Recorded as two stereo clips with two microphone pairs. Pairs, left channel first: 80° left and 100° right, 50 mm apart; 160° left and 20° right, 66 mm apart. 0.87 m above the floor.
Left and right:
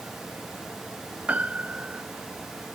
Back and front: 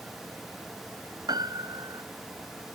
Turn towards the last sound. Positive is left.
turn(degrees=-40)